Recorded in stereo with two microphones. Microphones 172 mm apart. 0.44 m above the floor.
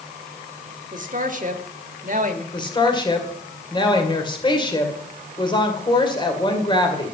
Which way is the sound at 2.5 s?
25° left (ahead or behind).